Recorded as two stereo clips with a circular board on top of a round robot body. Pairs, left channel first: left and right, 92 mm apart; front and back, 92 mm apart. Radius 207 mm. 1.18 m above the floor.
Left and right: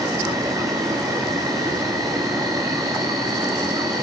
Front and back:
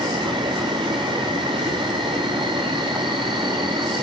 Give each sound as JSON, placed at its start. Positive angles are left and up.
{"t": 0.0, "sound": "an insect", "azimuth_deg": -145, "distance_m": 0.9}